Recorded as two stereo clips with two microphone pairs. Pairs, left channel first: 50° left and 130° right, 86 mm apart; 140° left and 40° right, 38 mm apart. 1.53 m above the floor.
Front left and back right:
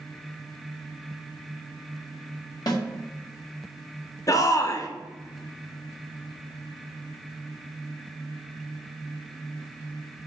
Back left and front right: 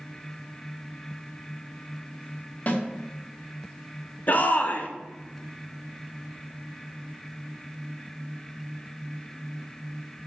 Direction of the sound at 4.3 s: 95° left.